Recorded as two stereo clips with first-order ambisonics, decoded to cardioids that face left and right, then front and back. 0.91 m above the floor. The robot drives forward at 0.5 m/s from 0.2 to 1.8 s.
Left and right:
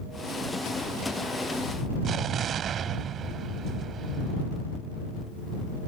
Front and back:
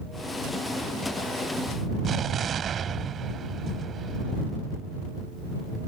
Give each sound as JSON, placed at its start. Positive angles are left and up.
{"t": 2.0, "sound": "an explosion", "azimuth_deg": -130}